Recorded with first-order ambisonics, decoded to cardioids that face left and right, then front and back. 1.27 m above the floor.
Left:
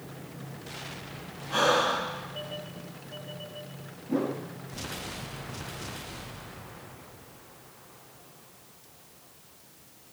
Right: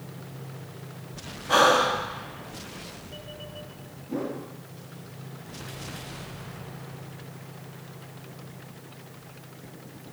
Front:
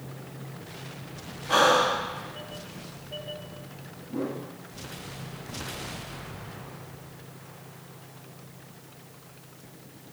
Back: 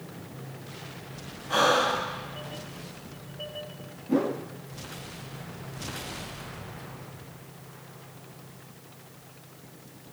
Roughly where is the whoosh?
Behind.